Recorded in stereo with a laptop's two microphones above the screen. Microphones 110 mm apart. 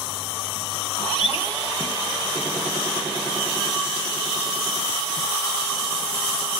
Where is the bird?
50° left (ahead or behind), 1.6 m.